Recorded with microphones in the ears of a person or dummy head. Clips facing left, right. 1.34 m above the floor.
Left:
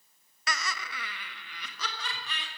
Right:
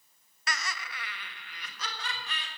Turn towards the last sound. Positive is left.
turn(degrees=80)